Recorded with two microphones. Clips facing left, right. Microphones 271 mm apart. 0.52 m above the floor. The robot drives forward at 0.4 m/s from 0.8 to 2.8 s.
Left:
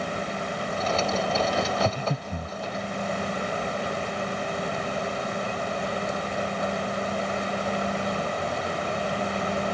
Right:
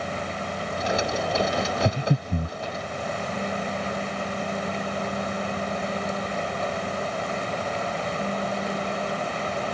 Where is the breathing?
25° right (ahead or behind); by 2.6 s 35° right (ahead or behind).